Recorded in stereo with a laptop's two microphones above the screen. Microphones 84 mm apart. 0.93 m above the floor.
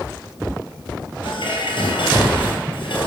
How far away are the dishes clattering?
About 3 m.